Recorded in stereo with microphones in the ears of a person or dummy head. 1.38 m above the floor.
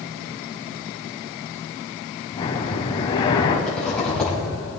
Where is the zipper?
5° left (ahead or behind), 4.5 m.